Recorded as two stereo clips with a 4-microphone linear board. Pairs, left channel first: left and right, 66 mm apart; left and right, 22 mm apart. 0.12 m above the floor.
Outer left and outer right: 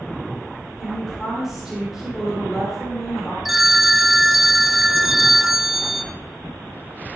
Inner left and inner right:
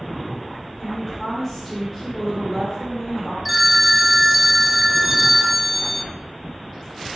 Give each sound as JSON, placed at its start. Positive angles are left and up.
{"t": 0.8, "sound": "a woman speaking", "side_deg": -5, "distance_m": 3.0}
{"t": 3.5, "sound": "a phone ringing", "side_deg": -5, "distance_m": 0.7}